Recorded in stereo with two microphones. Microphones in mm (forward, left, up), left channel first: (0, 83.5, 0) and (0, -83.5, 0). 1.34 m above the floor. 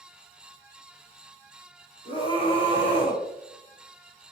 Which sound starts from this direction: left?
A scream, at 2.0 s.